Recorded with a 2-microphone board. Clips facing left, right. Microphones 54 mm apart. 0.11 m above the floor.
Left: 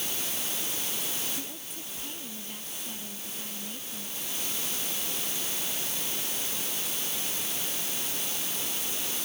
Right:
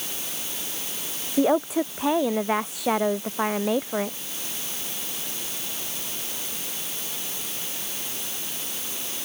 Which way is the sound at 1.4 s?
75° right (ahead or behind).